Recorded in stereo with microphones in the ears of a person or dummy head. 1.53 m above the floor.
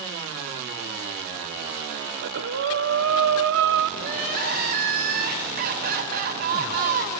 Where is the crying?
50° right (ahead or behind), 3.5 m.